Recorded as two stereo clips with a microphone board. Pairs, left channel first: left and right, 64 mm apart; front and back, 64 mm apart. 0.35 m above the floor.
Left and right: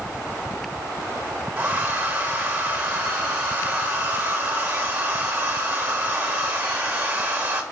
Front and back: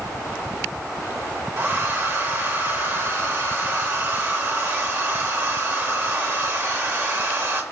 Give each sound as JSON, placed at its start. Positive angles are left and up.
{"t": 1.6, "sound": "a hair dryer", "azimuth_deg": -140, "distance_m": 0.6}